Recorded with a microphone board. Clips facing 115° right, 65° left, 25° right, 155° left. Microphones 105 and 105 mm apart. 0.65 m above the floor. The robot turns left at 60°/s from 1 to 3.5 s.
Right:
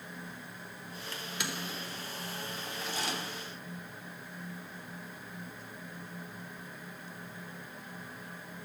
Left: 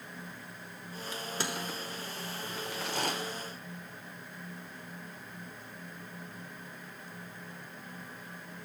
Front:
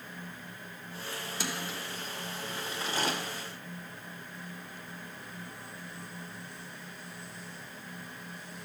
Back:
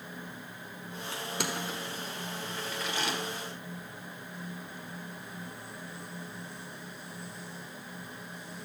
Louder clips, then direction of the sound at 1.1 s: Left 3 dB, back 3 dB; 145° left.